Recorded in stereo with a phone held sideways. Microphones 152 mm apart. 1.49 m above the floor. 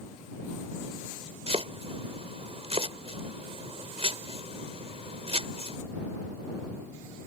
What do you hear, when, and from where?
1.5 s chopping: 45° right (ahead or behind)